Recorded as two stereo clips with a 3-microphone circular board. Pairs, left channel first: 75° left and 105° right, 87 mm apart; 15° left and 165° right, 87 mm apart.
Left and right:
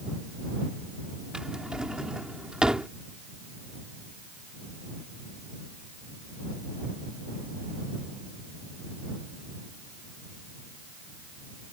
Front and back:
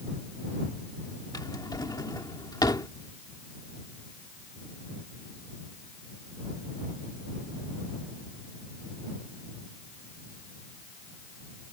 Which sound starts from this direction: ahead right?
A drawer, at 1.3 s.